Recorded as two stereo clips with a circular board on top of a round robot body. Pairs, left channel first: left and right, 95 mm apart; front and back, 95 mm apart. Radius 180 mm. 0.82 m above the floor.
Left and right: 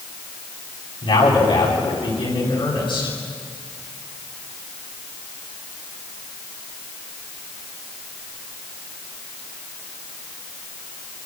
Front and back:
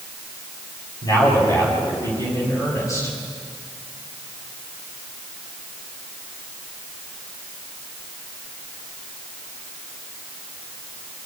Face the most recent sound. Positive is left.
turn(degrees=55)